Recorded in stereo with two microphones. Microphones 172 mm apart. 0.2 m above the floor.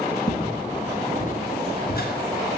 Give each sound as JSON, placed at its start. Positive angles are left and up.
{"t": 0.3, "sound": "footsteps", "side_deg": 25, "distance_m": 1.5}